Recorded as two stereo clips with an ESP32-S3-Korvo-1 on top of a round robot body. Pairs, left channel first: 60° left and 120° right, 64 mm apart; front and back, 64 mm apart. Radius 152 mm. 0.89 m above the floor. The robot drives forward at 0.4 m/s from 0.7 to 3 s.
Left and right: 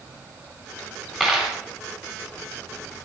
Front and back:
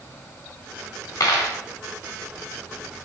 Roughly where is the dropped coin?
Ahead right.